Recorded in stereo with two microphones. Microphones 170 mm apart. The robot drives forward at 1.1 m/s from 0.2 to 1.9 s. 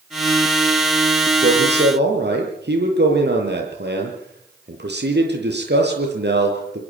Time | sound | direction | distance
1.4 | a man speaking | 70° right (ahead or behind) | 8 m